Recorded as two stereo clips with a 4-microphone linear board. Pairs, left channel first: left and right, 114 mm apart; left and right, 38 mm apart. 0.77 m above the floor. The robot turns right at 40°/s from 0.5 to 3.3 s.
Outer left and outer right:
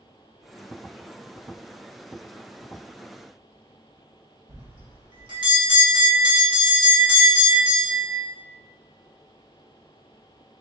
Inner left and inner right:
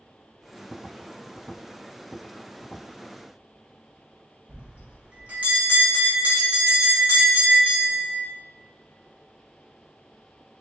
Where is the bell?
45° right (ahead or behind), 1.6 m.